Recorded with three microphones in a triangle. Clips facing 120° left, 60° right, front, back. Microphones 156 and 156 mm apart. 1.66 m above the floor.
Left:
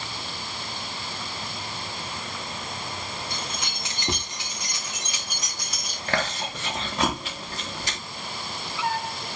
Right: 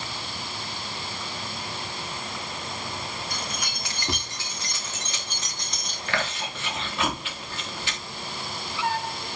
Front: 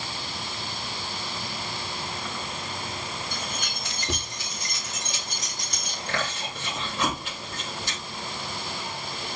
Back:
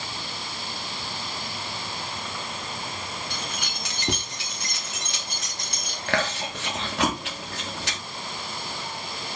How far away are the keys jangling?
About 3 m.